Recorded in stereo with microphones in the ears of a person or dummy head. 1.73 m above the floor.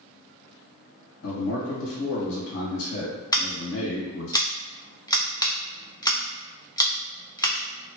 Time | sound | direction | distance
1.2 | a man speaking | 75° left (ahead or behind) | 1.7 m
3.3 | scissors | 20° left (ahead or behind) | 0.5 m